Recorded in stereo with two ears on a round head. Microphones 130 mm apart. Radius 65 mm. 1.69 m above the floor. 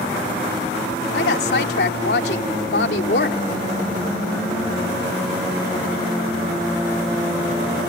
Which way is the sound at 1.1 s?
80° left.